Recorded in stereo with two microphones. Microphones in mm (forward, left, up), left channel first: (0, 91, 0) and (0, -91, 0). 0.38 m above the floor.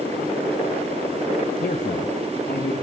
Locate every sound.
1.6 s a man speaking: 50° left (ahead or behind), 1.6 m